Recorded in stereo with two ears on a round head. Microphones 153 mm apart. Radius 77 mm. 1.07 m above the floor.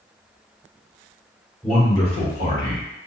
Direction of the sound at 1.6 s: Centre (ahead or behind).